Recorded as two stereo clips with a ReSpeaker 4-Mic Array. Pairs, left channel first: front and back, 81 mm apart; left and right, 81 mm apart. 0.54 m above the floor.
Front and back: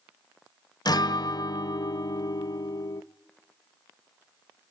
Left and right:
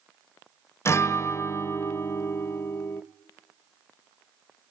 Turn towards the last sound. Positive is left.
turn(degrees=35)